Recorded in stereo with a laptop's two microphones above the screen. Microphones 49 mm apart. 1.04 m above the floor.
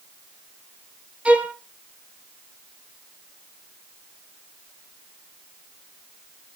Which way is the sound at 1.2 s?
25° right (ahead or behind).